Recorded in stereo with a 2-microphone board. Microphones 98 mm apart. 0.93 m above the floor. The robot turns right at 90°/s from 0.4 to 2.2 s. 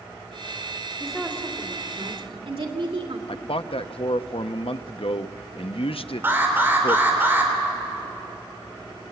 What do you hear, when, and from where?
1.0 s a woman speaking: 170° left, 2.5 m; by 3.2 s 80° right, 2.5 m
3.3 s a man speaking: 75° left (ahead or behind), 0.7 m
6.2 s an alarm: 25° right (ahead or behind), 3.5 m